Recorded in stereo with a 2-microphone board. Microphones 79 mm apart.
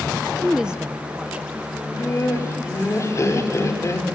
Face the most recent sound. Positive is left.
turn(degrees=40)  # may be behind; listen again after turning